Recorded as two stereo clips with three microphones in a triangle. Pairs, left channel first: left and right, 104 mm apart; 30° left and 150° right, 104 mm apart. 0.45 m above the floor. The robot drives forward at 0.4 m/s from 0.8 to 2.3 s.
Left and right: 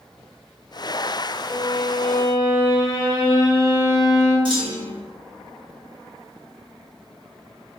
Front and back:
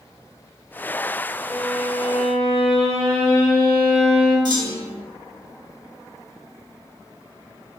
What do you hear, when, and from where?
1.5 s a violin: 150° right, 2.0 m; by 4.3 s 155° right, 2.5 m
4.5 s a clunk: 115° right, 0.8 m